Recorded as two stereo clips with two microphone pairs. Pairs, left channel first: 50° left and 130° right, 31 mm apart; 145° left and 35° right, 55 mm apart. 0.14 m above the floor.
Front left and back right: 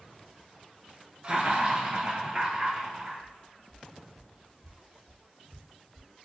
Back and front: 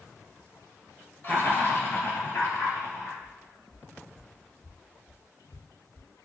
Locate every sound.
1.2 s laughter: straight behind, 1.9 m; by 3.1 s 160° left, 3 m
3.2 s footsteps: 40° left, 1.2 m; by 6.1 s 115° left, 3.5 m